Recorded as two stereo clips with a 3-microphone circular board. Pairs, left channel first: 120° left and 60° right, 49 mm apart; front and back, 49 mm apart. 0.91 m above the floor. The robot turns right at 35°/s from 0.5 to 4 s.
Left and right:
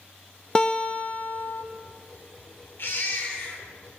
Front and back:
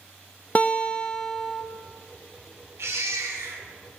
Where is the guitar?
50° left, 0.5 m; by 1.6 s 90° left, 0.5 m.